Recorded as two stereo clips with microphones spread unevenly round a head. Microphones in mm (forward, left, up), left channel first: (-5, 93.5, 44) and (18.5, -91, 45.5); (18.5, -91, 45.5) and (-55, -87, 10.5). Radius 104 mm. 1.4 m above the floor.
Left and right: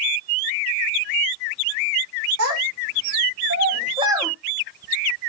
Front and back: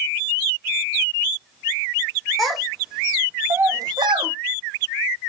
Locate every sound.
2.4 s a child speaking: 85° right, 1.8 m; by 4.3 s 175° right, 0.7 m